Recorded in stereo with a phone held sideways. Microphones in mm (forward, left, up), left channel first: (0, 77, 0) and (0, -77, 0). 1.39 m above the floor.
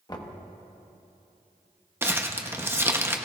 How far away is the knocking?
About 1.2 m.